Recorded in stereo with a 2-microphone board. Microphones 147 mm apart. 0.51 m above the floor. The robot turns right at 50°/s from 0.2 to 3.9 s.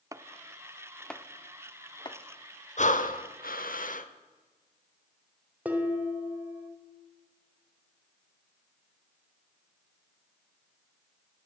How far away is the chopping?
About 0.7 m.